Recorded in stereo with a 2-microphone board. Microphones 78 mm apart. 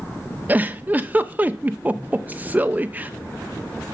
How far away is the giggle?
About 0.7 m.